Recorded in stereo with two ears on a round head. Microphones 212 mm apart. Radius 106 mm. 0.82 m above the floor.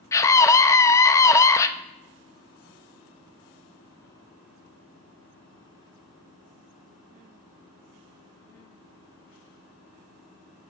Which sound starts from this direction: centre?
A scream, at 0.1 s.